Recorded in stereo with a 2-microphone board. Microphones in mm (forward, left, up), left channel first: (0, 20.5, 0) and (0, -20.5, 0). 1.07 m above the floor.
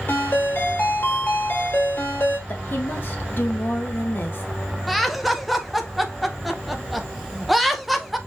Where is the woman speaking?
50° left (ahead or behind), 1.1 m.